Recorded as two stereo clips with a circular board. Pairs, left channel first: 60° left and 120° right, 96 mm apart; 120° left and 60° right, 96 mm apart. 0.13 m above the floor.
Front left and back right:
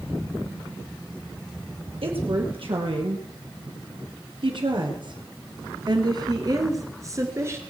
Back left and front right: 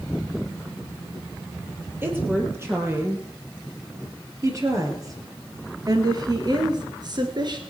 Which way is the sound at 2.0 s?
125° right.